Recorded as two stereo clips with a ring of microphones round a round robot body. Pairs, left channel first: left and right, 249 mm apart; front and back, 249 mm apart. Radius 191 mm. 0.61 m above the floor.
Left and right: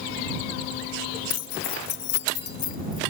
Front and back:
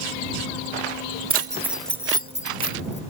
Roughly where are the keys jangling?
Left.